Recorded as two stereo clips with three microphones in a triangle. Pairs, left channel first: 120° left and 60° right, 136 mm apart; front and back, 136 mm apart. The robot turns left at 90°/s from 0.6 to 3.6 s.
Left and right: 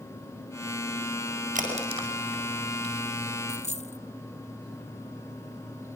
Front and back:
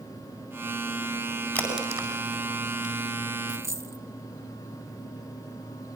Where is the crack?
80° right, 8.5 m; by 3.0 s 155° left, 8.5 m.